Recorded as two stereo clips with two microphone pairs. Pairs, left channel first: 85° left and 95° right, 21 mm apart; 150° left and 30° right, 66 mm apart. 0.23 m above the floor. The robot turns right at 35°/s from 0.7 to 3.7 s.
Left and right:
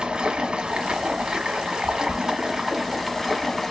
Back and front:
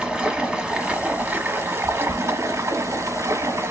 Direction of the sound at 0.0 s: 100° right.